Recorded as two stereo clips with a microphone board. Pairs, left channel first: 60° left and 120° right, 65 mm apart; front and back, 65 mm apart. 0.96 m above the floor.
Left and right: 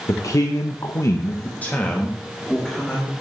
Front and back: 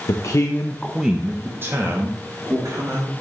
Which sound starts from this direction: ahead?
A man speaking, at 0.1 s.